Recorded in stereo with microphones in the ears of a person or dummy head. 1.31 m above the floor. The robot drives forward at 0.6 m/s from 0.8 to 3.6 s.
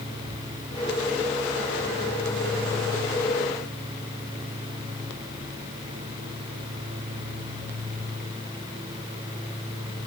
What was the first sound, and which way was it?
Only background noise.